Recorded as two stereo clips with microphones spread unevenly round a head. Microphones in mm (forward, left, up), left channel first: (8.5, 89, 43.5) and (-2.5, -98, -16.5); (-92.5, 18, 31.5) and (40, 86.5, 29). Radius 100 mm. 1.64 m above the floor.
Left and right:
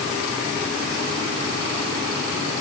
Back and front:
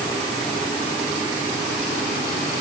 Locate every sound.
Only background noise.